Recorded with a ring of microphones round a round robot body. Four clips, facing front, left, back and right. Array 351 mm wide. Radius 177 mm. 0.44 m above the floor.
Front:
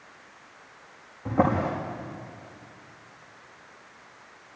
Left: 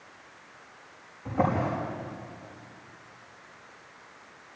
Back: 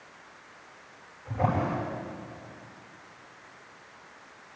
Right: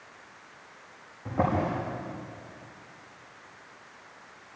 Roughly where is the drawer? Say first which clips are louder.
Even, front 4 dB; ahead.